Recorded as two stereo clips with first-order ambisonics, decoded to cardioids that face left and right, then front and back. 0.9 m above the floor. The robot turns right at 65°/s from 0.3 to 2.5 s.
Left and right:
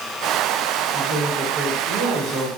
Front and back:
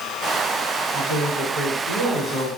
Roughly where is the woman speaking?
Ahead right.